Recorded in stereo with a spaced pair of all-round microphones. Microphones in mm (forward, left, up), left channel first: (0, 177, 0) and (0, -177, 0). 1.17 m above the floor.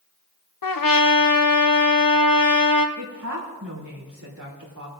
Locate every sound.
0.6 s a trumpet: 70° left (ahead or behind), 0.7 m
3.0 s a woman speaking: 55° right (ahead or behind), 3 m